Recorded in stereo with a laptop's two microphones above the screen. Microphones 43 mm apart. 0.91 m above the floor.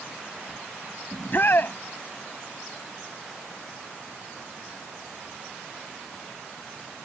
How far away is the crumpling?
I don't hear crumpling.